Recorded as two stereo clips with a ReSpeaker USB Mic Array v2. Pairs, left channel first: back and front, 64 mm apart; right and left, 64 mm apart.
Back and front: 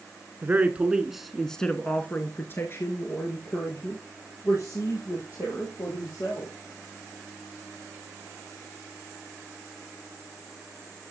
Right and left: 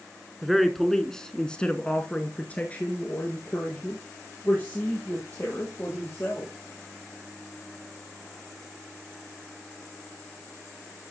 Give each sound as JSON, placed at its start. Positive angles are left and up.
{"t": 0.4, "sound": "a man speaking", "azimuth_deg": 0, "distance_m": 1.2}